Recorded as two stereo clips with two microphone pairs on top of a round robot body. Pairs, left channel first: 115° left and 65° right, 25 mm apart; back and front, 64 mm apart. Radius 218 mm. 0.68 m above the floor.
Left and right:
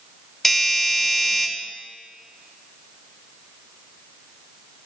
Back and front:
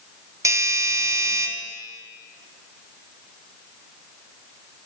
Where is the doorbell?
40° left, 6.5 m.